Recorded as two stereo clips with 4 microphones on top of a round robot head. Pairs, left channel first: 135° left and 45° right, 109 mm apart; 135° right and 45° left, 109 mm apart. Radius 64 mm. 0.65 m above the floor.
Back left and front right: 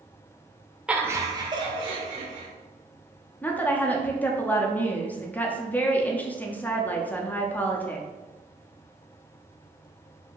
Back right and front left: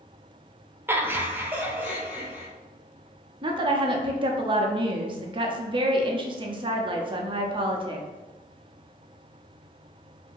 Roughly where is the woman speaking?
Ahead left.